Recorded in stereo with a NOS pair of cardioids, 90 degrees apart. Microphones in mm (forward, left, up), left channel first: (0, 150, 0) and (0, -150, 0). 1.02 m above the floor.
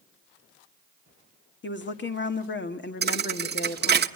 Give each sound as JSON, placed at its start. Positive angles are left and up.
{"t": 1.6, "sound": "a woman speaking", "azimuth_deg": 40, "distance_m": 2.0}
{"t": 3.0, "sound": "a thud", "azimuth_deg": -35, "distance_m": 1.0}